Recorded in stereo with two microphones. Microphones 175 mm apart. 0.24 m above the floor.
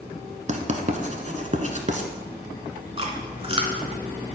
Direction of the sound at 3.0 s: 35° right (ahead or behind).